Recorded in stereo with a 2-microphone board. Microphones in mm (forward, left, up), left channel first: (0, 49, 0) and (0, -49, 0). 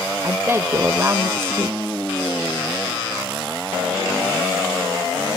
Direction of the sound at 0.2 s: 25° right (ahead or behind).